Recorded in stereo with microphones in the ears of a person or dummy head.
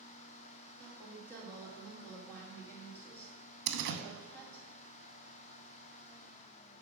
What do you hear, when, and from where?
0.8 s a woman speaking: 10° left (ahead or behind), 2 m
3.7 s a door slam: 60° right (ahead or behind), 0.7 m